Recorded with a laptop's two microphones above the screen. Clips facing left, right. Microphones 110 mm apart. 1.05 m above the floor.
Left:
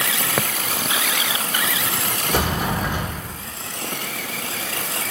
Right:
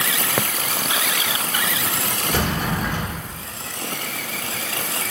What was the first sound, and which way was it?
A sliding door, 15° left (ahead or behind).